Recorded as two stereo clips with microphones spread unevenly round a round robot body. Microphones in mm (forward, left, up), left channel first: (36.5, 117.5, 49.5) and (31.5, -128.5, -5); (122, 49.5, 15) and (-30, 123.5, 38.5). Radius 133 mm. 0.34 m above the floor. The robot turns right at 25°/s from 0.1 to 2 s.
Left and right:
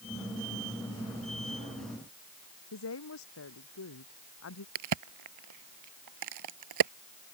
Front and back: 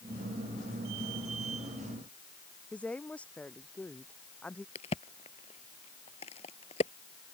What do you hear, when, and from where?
2.7 s a woman speaking: 55° left
4.8 s a crack: 95° right